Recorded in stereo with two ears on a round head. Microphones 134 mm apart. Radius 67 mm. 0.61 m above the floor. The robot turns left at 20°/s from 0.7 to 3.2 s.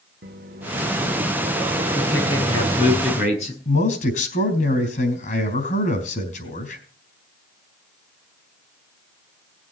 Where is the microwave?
95° right, 1.7 m; by 3.0 s 140° right, 1.7 m.